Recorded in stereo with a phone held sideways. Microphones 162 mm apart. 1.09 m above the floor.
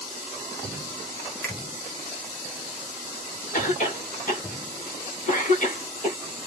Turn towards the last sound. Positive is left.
turn(degrees=55)  # may be behind; listen again after turning